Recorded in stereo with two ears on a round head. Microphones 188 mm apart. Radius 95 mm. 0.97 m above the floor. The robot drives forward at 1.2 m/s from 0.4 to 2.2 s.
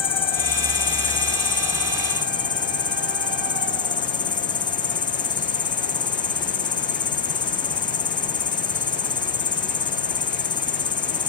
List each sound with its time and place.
0.0 s an insect: 25° left (ahead or behind)